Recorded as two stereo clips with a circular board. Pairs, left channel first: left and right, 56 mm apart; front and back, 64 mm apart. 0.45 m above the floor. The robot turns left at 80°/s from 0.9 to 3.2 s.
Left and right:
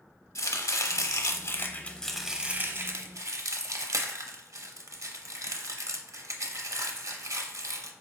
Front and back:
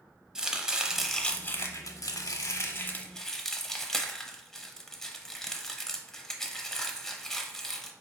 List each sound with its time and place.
0.3 s chopping: 100° left, 0.7 m; by 7.9 s 85° right, 0.7 m